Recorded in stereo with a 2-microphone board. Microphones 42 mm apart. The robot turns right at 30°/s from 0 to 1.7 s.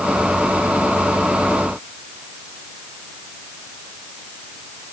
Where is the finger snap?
I don't hear a finger snap.